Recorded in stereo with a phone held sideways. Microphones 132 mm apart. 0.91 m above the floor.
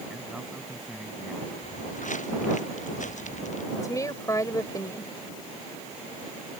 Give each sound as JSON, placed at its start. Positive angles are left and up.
{"t": 0.1, "sound": "a man speaking", "side_deg": 0}
{"t": 1.6, "sound": "footsteps", "side_deg": 75}
{"t": 3.8, "sound": "a woman speaking", "side_deg": 25}